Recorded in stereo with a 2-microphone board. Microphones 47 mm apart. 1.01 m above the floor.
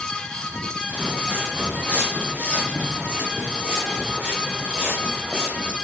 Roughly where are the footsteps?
Right.